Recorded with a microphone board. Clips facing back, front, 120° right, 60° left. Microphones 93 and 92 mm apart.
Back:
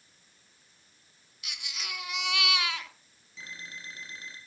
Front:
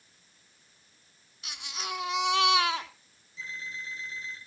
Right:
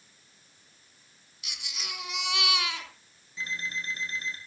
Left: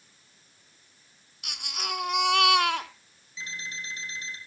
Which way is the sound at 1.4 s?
50° left.